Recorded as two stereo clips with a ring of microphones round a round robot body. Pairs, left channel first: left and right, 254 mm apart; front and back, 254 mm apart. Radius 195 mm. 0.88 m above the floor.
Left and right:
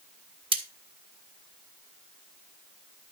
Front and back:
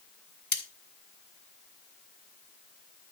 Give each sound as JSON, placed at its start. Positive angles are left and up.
{"t": 0.5, "sound": "cutlery clinking", "azimuth_deg": -20, "distance_m": 2.5}